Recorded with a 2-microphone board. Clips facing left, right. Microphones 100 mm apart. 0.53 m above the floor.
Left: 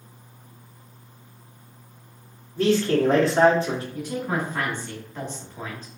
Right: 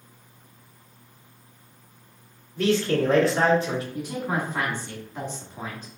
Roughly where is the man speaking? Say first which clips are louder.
Left 2 dB; left.